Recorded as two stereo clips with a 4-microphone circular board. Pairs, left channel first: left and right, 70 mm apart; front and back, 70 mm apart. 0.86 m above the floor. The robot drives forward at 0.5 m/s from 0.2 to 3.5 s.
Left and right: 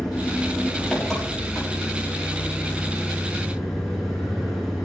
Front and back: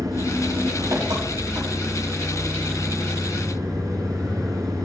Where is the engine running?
170° left, 4.5 m; by 4.8 s 175° left, 6 m.